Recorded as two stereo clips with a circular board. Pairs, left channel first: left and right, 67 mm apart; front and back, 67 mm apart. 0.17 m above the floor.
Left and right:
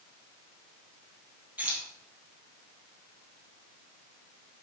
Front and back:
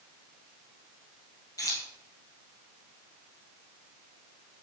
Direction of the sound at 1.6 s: 25° right.